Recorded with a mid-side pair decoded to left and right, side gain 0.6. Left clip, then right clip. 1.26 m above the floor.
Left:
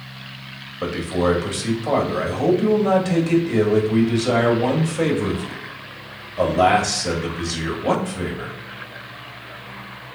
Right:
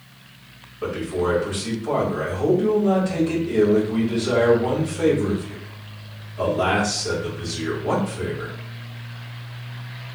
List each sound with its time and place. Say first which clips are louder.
0.8 s a man speaking: left 2 dB; 65° left, 1.7 m